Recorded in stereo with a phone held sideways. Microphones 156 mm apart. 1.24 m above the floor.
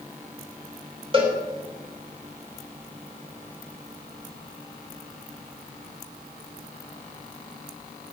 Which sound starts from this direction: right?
A cowbell, at 1.1 s.